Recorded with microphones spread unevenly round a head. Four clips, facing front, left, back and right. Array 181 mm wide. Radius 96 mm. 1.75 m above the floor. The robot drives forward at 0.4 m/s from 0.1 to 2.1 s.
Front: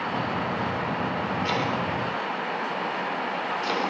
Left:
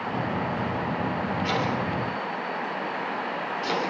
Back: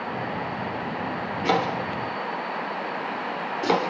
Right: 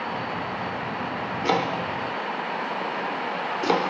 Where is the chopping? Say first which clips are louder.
Right 6 dB, back 7 dB; 130° right, 4.5 m; by 3.8 s 135° right, 4.5 m.